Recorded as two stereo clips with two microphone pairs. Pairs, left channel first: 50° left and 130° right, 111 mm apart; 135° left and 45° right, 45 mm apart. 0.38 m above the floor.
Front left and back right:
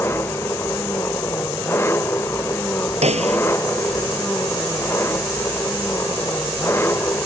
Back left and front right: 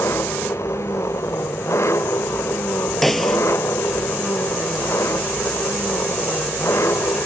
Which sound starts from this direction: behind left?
An engine running, at 0.0 s.